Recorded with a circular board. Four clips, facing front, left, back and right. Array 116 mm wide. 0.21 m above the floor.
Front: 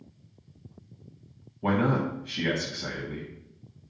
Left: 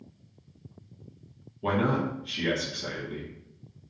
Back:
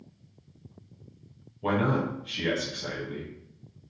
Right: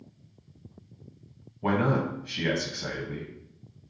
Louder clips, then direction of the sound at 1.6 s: Right 1 dB, front 1 dB; 65° right.